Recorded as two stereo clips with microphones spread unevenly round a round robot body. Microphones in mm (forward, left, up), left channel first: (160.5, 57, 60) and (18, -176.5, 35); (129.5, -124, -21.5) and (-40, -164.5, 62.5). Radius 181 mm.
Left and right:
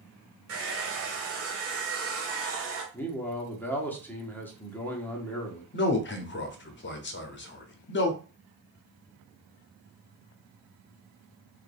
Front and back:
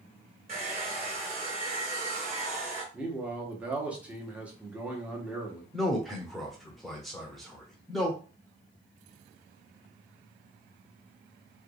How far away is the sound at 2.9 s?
About 1.1 m.